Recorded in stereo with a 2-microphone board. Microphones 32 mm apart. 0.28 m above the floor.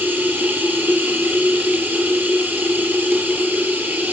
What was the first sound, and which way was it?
Running water, 75° right (ahead or behind).